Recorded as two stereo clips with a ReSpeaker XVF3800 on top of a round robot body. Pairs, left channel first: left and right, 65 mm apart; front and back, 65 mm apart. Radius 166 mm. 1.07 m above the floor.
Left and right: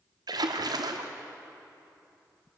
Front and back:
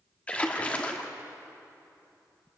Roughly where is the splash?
Right.